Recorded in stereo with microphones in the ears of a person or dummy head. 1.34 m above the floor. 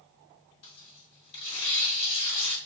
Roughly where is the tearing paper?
Left.